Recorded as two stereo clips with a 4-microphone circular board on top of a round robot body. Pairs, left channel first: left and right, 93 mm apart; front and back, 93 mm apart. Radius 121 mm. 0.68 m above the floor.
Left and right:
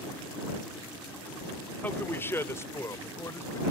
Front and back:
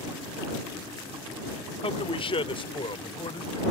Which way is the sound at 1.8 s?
20° left.